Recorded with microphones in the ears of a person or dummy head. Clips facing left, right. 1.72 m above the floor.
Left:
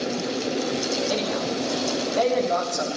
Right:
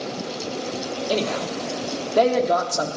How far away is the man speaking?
About 1.3 m.